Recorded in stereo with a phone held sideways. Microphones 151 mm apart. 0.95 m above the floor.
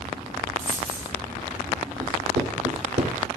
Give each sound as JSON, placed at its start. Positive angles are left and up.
{"t": 0.6, "sound": "a dropped coin", "side_deg": 40, "distance_m": 7.0}
{"t": 2.0, "sound": "writing", "side_deg": -60, "distance_m": 3.0}